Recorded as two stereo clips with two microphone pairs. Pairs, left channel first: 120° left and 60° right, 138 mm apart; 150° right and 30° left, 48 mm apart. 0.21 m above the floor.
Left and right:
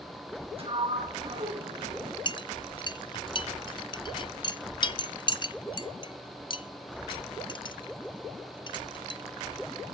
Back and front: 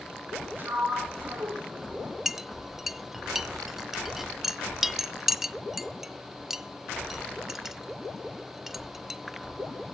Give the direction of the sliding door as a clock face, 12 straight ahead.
1 o'clock.